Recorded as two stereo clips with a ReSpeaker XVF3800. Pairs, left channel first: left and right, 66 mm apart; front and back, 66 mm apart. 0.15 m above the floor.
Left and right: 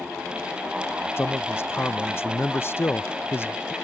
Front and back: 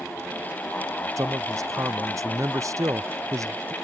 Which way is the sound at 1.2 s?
145° left.